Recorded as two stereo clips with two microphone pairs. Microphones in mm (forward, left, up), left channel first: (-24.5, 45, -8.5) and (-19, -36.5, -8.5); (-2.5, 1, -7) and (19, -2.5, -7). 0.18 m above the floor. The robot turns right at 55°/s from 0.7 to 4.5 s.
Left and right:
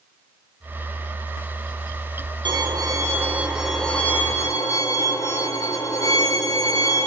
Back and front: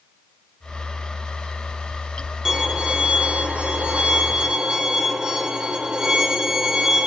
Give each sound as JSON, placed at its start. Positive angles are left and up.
{"t": 2.5, "sound": "a violin", "azimuth_deg": -65, "distance_m": 1.4}